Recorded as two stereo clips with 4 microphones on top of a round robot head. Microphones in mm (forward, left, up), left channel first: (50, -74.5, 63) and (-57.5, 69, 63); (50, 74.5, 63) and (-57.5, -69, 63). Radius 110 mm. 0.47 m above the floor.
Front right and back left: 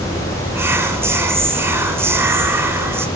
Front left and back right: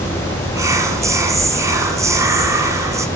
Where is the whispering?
175° right, 0.8 m.